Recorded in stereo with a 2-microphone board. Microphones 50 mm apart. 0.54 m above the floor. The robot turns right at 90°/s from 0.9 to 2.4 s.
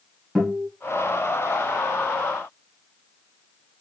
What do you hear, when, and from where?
0.3 s a guitar: 5° left (ahead or behind), 2.5 m